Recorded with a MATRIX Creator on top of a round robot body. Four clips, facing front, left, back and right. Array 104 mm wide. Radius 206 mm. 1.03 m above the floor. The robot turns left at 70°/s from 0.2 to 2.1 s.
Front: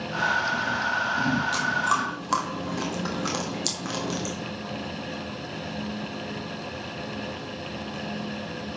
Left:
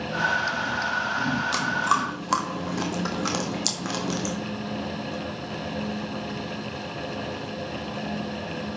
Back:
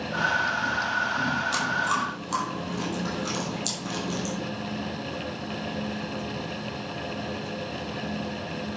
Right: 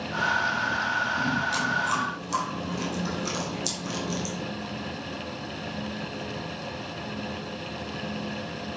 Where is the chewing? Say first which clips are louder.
Left 3 dB, front 1 dB; 105° left, 1.4 m; by 4.3 s 65° left, 1.4 m.